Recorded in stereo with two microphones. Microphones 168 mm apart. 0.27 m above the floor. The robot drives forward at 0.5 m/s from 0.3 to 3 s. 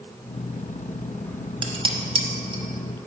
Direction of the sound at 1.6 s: 30° right (ahead or behind).